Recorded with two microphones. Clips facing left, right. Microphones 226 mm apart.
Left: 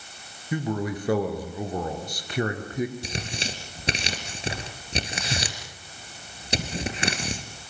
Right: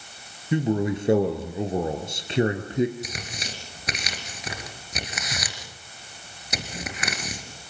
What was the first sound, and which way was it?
A man speaking, 25° right (ahead or behind).